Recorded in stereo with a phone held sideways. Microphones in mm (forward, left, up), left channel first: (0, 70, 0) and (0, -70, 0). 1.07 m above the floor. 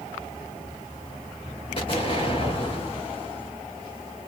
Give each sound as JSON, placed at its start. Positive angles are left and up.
{"t": 1.8, "sound": "an explosion", "side_deg": 45, "distance_m": 1.9}